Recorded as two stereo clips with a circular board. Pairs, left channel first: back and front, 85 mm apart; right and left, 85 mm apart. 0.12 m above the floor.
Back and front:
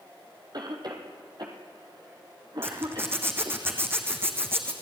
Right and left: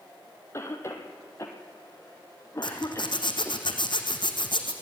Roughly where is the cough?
Ahead right.